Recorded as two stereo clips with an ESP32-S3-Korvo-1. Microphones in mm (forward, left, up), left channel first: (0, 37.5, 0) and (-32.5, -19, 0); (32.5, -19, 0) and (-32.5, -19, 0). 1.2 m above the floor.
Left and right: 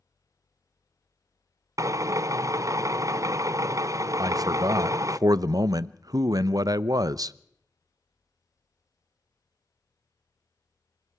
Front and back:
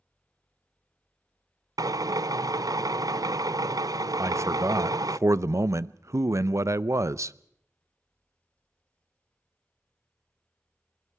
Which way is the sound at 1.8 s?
155° right.